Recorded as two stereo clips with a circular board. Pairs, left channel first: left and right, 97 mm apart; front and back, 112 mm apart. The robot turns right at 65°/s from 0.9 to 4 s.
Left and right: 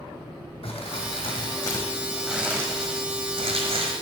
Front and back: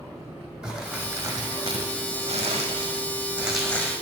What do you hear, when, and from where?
0.6 s crumpling: 95° left, 1.9 m; by 3.9 s 70° right, 1.9 m